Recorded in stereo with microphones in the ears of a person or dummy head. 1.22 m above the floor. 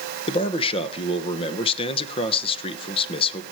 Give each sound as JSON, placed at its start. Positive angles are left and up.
{"t": 0.3, "sound": "a man speaking", "side_deg": 30, "distance_m": 1.1}